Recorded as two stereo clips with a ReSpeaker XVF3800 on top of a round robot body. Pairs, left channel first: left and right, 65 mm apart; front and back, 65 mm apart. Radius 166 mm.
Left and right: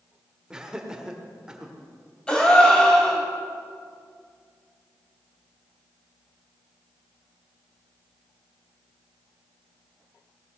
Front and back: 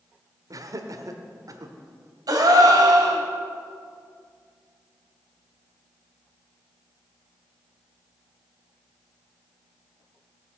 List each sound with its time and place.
0.5 s laughter: 170° right, 1.6 m
2.3 s a gasp: 165° left, 2.5 m